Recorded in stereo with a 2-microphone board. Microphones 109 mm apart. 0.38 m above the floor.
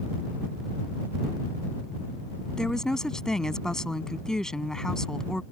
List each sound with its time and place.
2.6 s a woman speaking: 5° left (ahead or behind)